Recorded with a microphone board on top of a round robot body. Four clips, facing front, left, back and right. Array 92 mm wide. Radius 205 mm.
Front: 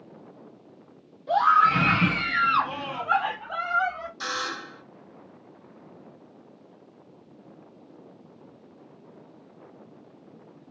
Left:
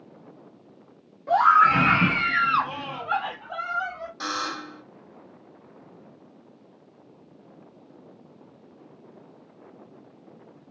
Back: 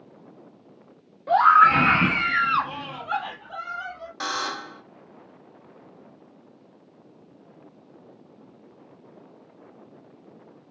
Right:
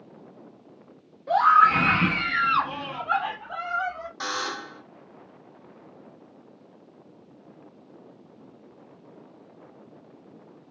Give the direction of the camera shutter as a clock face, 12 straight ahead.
No camera shutter in this recording.